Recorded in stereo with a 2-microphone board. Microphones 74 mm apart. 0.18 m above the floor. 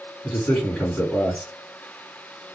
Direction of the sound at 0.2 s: 20° left (ahead or behind).